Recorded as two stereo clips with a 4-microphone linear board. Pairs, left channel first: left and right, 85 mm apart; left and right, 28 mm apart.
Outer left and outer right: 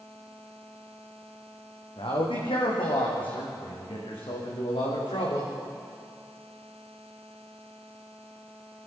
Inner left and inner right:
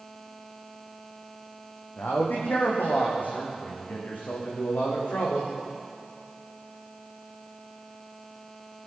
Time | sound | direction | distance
2.0 | a man speaking | 80° left | 6 m